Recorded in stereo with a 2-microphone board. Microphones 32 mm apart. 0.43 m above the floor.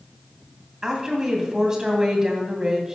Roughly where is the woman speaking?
Right.